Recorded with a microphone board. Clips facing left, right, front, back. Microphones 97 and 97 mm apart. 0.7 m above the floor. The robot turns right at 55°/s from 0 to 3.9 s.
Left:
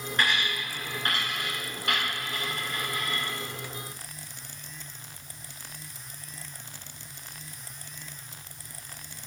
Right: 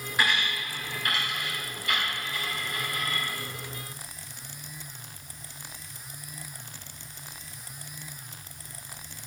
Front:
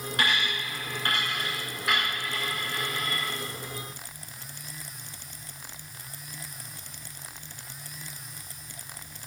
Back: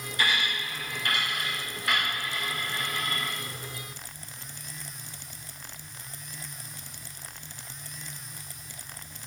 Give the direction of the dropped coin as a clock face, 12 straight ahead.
12 o'clock.